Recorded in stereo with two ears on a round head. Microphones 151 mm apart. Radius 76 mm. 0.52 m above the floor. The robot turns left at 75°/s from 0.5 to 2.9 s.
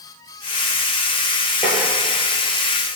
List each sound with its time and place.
1.6 s tapping: centre (ahead or behind), 2.0 m; by 1.8 s 15° right (ahead or behind), 2.0 m